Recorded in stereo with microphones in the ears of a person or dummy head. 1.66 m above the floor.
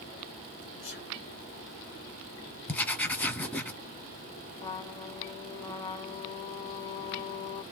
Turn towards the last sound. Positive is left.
turn(degrees=30)  # may be behind; listen again after turning